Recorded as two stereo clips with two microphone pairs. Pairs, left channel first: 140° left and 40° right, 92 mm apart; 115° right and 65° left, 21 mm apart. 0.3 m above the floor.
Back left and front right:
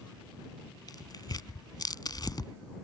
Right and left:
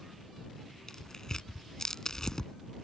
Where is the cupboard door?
No cupboard door in this recording.